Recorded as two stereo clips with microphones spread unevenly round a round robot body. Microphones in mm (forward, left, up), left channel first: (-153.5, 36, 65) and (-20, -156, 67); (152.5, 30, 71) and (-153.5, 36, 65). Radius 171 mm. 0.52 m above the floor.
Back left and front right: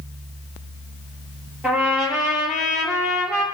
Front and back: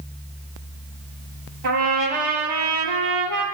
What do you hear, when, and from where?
1.6 s a trumpet: 140° right, 7.5 m